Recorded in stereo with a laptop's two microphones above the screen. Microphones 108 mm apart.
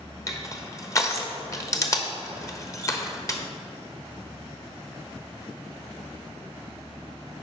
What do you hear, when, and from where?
0.3 s crushing: 30° left (ahead or behind), 0.9 m